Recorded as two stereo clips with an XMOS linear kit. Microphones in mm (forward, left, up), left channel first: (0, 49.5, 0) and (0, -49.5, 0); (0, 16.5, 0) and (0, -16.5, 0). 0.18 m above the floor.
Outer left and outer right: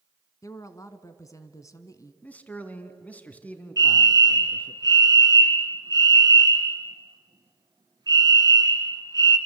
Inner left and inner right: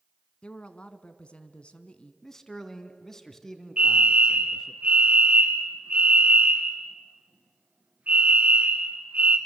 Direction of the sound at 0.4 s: 35° left (ahead or behind).